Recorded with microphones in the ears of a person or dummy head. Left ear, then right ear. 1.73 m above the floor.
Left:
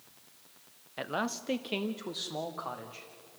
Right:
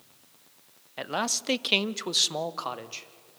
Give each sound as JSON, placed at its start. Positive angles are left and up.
{"t": 1.0, "sound": "a man speaking", "side_deg": -10, "distance_m": 0.6}